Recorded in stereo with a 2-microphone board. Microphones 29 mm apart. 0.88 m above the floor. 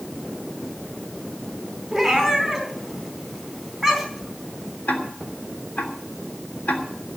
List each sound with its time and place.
1.9 s a cat meowing: 5° right (ahead or behind), 3.5 m
4.9 s ticking: 75° left (ahead or behind), 3 m